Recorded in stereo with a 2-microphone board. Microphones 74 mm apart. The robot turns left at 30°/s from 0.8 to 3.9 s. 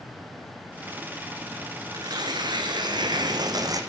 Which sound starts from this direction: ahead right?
Tearing paper, at 1.9 s.